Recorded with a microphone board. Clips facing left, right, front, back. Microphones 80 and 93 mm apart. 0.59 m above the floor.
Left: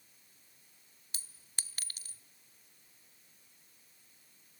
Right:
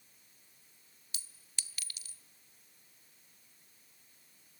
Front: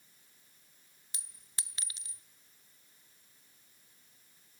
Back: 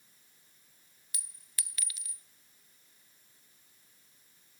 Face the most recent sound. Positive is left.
turn(degrees=50)